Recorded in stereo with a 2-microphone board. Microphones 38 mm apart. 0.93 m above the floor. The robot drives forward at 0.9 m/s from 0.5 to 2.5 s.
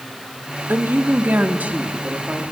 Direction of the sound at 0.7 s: 65° right (ahead or behind).